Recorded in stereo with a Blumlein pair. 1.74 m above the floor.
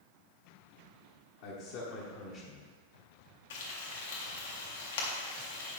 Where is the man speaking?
50° left, 1.8 m; by 2.6 s 20° left, 1.4 m.